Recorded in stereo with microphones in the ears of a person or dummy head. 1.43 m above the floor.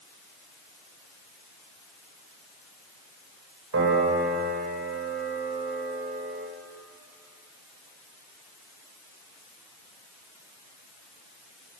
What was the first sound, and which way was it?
A piano, 80° right.